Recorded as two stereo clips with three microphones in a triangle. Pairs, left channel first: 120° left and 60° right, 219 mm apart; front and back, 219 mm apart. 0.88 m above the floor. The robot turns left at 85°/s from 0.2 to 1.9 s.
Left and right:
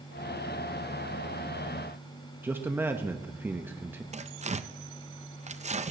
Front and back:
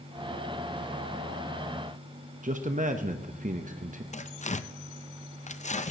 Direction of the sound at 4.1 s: 30° right.